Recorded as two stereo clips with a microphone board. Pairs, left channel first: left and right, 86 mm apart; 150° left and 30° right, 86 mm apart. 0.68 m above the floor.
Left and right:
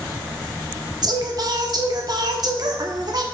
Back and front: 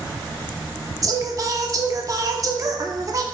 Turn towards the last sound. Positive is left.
turn(degrees=-70)